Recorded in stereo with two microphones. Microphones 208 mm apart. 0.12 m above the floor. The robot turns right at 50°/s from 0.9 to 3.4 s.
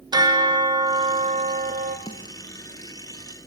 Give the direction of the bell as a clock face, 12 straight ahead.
5 o'clock.